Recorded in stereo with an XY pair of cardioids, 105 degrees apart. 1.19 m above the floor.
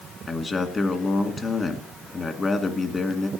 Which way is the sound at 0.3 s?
30° left.